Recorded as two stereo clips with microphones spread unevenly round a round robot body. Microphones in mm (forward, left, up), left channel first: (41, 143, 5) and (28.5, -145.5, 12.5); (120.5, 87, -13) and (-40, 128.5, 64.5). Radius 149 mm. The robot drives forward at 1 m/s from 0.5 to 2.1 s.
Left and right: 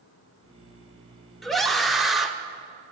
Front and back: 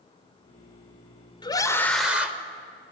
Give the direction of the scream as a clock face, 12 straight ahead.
12 o'clock.